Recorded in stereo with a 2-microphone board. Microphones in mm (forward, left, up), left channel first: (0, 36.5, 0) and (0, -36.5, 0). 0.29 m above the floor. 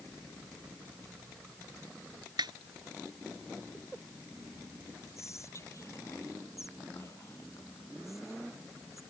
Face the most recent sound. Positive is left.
turn(degrees=40)  # may be behind; listen again after turning